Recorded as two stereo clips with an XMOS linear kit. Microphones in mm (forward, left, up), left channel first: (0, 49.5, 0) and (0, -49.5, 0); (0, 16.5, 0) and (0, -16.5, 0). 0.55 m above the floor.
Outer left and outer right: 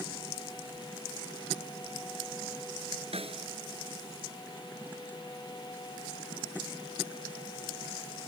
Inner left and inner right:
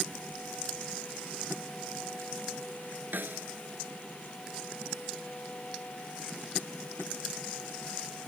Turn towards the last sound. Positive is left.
turn(degrees=-75)  # may be behind; listen again after turning